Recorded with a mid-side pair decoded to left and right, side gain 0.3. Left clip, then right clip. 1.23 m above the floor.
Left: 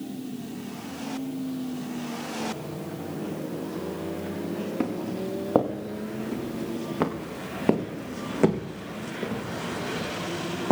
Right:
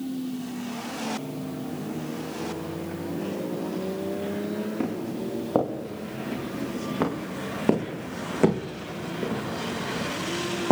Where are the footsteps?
40° left, 4.5 m; by 10.7 s 25° right, 4 m.